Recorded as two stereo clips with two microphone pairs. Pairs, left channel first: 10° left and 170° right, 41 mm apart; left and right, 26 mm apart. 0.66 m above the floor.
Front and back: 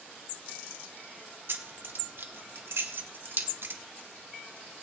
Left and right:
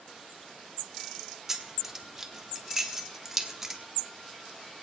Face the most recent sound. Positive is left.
turn(degrees=-165)